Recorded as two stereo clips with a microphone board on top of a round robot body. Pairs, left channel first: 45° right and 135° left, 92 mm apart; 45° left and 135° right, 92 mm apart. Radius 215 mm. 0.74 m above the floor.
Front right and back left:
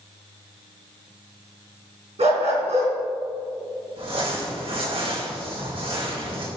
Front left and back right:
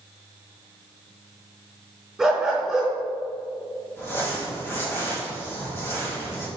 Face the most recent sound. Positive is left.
turn(degrees=110)